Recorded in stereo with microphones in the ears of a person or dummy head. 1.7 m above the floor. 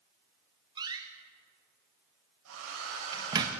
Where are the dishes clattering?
No dishes clattering in this recording.